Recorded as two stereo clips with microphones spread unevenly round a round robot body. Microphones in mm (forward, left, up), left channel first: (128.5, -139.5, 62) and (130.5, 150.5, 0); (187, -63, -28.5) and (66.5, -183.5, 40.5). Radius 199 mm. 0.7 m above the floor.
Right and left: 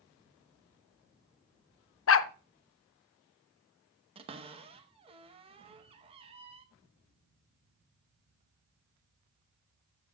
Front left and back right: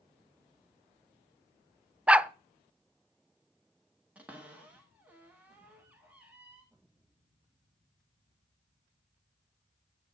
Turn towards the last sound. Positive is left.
turn(degrees=110)